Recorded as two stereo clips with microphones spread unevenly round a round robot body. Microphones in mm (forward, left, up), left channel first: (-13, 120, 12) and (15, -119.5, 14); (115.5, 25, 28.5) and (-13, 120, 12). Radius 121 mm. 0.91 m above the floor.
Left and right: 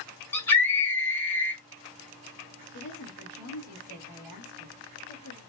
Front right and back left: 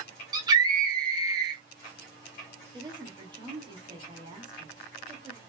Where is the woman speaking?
80° left, 1.7 m.